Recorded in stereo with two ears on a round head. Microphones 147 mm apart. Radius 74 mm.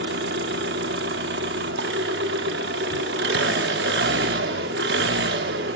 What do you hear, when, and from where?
0.0 s an engine running: 65° right (ahead or behind), 1.5 m